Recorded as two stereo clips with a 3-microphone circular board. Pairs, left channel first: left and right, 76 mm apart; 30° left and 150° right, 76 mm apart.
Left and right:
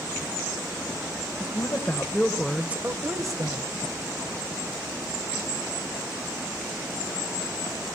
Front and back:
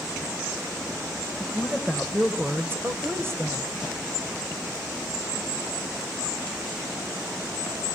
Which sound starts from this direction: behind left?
A woman speaking, at 1.4 s.